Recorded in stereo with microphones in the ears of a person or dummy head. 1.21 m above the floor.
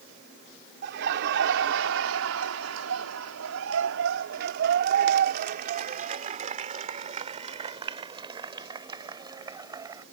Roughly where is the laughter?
Right.